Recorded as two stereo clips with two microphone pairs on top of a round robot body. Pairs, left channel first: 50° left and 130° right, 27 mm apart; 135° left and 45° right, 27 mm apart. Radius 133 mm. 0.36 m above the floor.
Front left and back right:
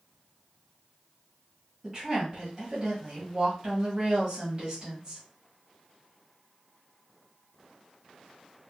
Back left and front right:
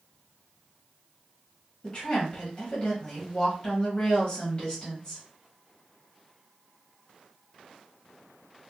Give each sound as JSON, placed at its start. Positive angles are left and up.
{"t": 1.8, "sound": "a woman speaking", "azimuth_deg": -150, "distance_m": 1.8}